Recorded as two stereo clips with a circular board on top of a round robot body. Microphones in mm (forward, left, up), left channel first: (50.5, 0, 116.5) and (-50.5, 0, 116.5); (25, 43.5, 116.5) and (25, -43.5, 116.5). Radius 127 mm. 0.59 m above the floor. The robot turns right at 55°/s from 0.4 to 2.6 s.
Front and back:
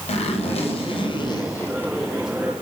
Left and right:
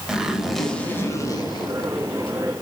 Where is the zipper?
5° right, 1.8 m; by 2.4 s 105° left, 1.8 m.